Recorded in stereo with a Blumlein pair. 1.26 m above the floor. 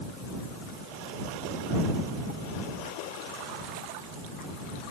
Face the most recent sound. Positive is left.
No sound to turn to.